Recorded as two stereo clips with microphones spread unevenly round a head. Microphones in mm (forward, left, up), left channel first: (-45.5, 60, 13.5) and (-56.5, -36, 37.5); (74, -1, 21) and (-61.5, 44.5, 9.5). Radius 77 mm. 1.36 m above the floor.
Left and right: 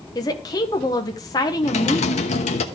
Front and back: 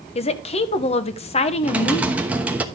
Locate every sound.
0.1 s a woman speaking: 30° left, 1.0 m
1.6 s typing on a keyboard: 80° left, 1.0 m